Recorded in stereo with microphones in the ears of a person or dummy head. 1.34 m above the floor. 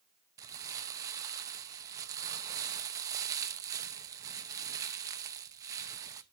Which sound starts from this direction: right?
Crumpling, at 0.4 s.